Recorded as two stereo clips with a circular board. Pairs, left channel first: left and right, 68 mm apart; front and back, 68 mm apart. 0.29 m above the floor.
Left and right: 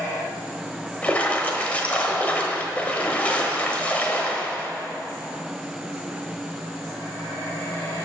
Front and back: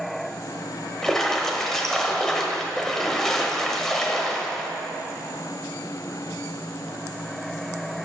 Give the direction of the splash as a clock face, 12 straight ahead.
10 o'clock.